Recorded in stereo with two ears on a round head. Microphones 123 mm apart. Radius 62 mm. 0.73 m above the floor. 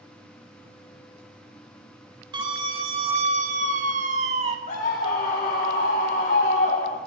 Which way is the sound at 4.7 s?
55° left (ahead or behind).